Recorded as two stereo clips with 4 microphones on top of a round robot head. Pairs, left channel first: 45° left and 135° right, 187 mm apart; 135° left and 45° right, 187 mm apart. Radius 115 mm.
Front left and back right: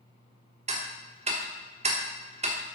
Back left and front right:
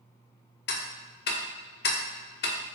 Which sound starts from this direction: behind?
Ticking, at 0.7 s.